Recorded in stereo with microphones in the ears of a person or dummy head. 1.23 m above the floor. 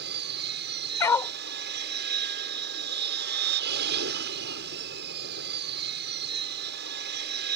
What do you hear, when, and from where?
0.0 s an aircraft: 50° right (ahead or behind)
1.0 s a dog barking: 15° left (ahead or behind)